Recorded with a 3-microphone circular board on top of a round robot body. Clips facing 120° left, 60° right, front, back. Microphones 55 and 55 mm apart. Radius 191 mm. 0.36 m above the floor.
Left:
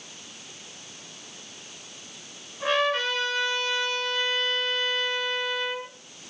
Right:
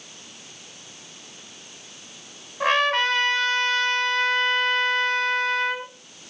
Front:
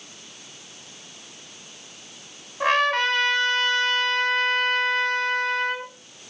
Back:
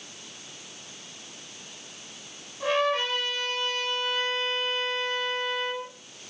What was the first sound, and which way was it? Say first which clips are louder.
A trumpet: right 4 dB, front 5 dB; 30° right.